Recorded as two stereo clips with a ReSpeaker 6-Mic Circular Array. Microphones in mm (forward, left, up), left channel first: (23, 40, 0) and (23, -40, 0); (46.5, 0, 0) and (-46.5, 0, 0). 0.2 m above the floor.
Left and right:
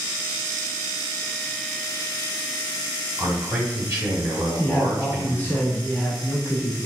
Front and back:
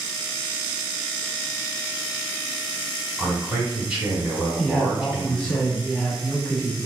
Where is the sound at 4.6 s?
75° left, 1.0 m.